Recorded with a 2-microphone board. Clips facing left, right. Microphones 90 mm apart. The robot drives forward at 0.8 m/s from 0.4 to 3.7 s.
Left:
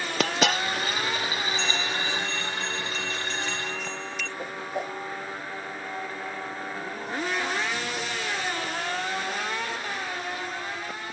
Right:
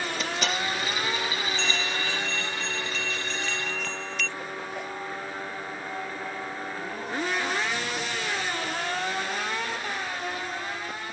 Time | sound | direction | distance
0.2 | a dropped coin | 90° left | ?
1.6 | a bell | 5° left (ahead or behind) | ?
4.4 | a whoosh | 30° left (ahead or behind) | ?